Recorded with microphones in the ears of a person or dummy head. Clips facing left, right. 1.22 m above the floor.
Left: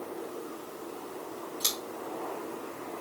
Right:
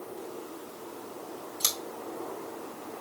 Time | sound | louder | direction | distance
1.6 | scissors | left 1 dB | 70° right (ahead or behind) | 2.5 m